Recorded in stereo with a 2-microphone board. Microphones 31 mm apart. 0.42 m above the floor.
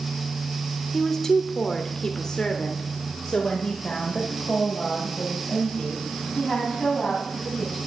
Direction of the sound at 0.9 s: 15° left (ahead or behind).